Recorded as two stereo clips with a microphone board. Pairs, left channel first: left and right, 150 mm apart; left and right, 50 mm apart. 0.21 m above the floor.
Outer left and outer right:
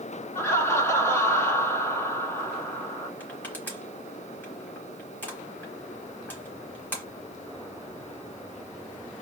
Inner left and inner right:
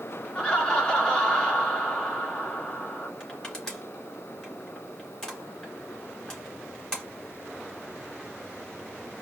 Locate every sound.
0.3 s laughter: 15° left (ahead or behind), 2.5 m
3.2 s crushing: 10° left (ahead or behind), 2.5 m